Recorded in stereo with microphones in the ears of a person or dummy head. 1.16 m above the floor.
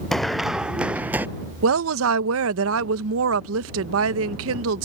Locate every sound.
0.1 s running footsteps: 5° left (ahead or behind); by 1.3 s 10° right (ahead or behind)
1.6 s a woman speaking: 75° right (ahead or behind)